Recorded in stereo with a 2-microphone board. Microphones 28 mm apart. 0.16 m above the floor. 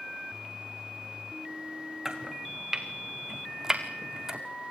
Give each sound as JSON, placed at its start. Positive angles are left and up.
{"t": 2.0, "sound": "chopping", "side_deg": -20, "distance_m": 2.0}